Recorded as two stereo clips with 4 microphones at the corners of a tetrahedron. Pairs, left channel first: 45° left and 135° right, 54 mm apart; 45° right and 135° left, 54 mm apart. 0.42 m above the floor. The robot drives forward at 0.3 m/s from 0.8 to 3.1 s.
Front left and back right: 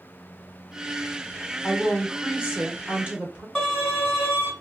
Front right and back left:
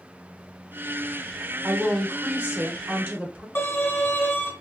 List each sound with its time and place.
1.6 s a woman speaking: 155° left, 1.0 m; by 3.5 s 165° left, 1.3 m
3.5 s a violin: 50° right, 2 m